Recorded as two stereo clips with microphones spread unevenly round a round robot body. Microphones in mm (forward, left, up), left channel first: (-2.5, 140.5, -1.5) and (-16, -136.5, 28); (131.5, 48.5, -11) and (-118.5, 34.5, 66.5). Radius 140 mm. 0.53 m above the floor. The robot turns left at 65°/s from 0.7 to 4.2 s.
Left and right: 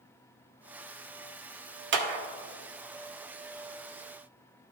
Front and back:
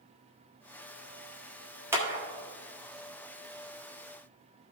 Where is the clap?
75° right, 1.1 m; by 2.2 s 95° right, 1.1 m.